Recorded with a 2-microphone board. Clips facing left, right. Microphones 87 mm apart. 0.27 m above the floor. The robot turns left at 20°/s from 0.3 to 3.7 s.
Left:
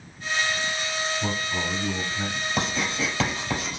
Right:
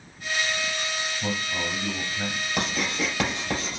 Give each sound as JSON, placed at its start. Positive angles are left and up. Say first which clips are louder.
{"t": 1.2, "sound": "a man speaking", "louder": "left 1 dB", "side_deg": 10, "distance_m": 1.3}
{"t": 2.6, "sound": "writing", "louder": "even", "side_deg": -5, "distance_m": 3.0}